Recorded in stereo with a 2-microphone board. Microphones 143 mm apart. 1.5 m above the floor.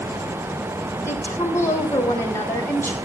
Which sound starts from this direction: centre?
A woman speaking, at 1.1 s.